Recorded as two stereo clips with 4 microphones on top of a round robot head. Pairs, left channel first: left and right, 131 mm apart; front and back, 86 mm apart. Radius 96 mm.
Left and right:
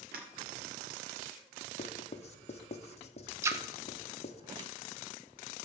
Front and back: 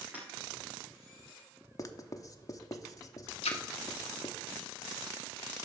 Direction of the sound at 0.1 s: 100° right.